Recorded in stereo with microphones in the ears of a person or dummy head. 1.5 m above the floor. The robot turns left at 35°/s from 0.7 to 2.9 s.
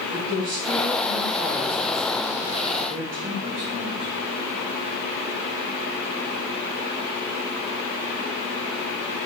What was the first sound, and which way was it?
A woman speaking, 45° right.